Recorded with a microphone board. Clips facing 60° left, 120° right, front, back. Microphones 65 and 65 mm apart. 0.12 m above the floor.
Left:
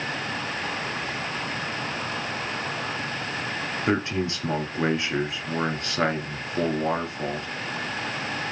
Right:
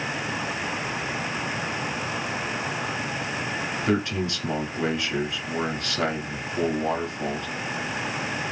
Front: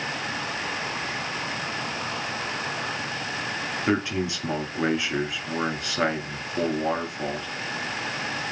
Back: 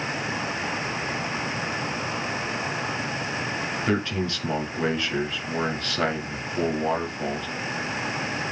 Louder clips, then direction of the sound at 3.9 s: Even, front 2 dB; 60° left.